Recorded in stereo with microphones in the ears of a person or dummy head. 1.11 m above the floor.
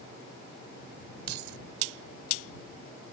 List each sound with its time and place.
1.3 s keys jangling: 60° right (ahead or behind)